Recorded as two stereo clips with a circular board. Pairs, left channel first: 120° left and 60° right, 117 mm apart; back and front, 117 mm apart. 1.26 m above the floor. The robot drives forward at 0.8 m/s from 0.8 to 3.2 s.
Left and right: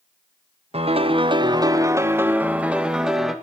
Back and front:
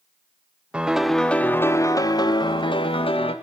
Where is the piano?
80° right, 1.3 m; by 3.3 s 145° right, 2 m.